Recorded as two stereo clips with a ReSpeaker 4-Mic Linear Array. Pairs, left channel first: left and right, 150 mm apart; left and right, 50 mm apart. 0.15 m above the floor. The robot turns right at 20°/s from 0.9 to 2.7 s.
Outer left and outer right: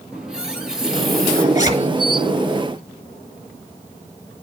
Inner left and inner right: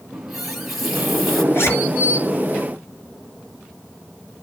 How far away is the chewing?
I don't hear chewing.